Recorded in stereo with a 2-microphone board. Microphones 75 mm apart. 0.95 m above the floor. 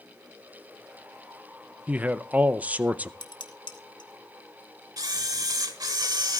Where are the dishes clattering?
85° left, 1.1 m.